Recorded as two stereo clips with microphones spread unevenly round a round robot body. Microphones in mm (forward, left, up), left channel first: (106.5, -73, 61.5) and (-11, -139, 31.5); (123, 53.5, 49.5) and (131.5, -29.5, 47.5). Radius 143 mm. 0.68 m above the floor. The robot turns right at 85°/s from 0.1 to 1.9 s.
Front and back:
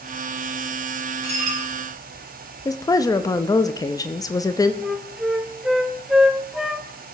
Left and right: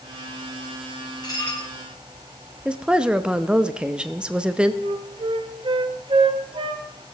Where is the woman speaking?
30° right, 0.7 m.